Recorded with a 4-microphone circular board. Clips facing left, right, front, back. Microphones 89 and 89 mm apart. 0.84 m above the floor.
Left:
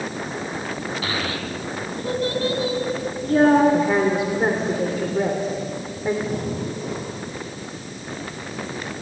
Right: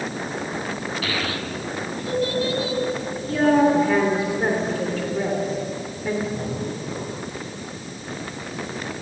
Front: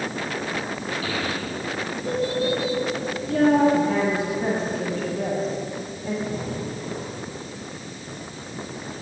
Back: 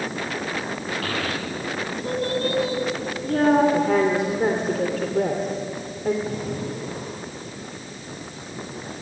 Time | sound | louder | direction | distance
1.0 | a child speaking | even, even | 150° left | 4 m
3.7 | a woman speaking | even, back 2 dB | 160° left | 3 m
6.2 | breathing | left 1 dB, back 1 dB | 110° left | 9 m